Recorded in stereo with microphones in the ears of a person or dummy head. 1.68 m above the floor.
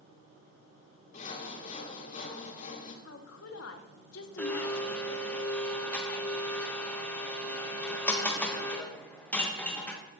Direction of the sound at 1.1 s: 45° left (ahead or behind).